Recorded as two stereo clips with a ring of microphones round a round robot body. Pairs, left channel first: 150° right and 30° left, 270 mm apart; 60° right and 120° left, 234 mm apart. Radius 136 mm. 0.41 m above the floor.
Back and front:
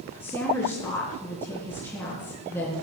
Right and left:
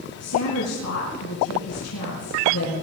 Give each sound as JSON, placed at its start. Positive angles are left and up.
{"t": 0.2, "sound": "a woman speaking", "azimuth_deg": -70, "distance_m": 4.0}